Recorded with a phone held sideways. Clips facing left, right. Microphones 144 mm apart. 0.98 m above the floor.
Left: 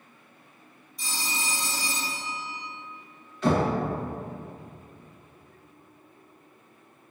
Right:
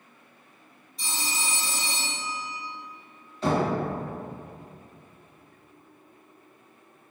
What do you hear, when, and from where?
1.0 s a phone ringing: 30° right (ahead or behind), 1.9 m
3.4 s knocking: 30° right (ahead or behind), 1.2 m